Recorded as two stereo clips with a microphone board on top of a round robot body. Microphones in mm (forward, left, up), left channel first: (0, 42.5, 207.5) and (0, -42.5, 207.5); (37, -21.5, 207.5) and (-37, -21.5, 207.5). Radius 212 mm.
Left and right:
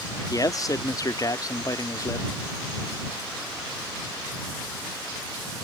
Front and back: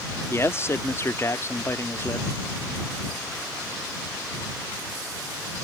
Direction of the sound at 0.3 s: 50° left.